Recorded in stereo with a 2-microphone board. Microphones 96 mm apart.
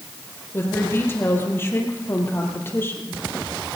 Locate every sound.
0.5 s a woman speaking: 25° left (ahead or behind), 4 m